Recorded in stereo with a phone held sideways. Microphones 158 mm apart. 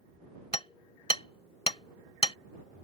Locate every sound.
0.5 s hammering: 40° left (ahead or behind)